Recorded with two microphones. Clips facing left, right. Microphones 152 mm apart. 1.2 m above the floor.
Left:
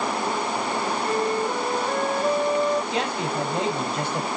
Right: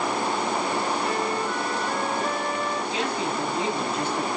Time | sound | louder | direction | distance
1.0 | a flute | left 2 dB | 40° left (ahead or behind) | 4.5 m
2.9 | a man speaking | left 1 dB | 70° left (ahead or behind) | 6 m